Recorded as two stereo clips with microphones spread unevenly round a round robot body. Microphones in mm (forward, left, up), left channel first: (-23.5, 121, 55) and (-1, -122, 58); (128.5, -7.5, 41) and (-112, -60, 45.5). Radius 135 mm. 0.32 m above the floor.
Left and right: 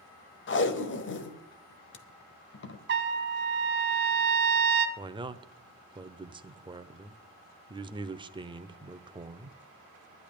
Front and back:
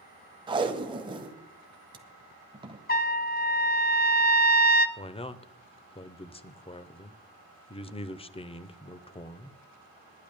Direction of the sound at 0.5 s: 125° left.